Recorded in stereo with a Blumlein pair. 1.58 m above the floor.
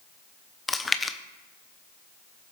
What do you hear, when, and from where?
0.7 s chewing: 10° left, 0.7 m